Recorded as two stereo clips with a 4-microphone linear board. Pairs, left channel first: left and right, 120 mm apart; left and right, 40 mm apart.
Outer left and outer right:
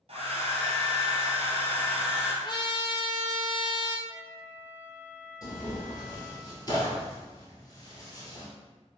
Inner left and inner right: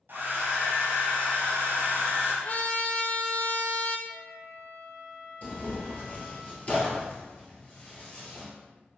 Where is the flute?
45° left (ahead or behind), 1.5 m.